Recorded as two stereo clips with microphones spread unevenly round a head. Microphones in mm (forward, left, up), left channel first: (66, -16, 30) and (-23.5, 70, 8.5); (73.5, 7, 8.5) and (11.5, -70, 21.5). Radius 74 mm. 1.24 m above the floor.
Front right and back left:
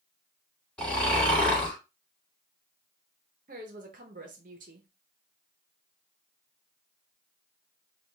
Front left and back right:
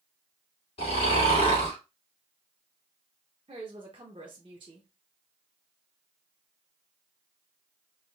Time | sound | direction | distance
0.8 | snoring | 35° left | 2.5 m
3.5 | a woman speaking | 175° left | 0.7 m